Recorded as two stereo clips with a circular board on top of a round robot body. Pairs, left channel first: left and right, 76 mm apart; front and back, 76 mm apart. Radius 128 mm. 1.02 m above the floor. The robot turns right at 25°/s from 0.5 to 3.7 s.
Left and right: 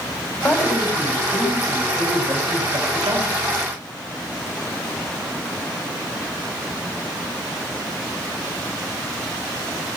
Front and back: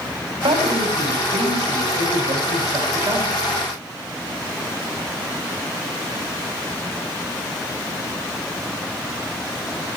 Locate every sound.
0.4 s a man speaking: 155° left, 4.5 m; by 3.3 s 135° right, 4.5 m